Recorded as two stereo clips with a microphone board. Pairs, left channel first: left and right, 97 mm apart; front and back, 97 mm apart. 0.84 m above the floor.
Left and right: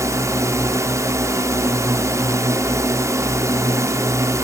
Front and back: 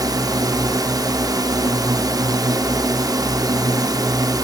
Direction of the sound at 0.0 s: 140° right.